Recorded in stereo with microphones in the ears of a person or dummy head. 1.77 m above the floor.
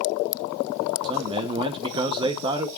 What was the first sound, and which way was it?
A man speaking, 20° right (ahead or behind).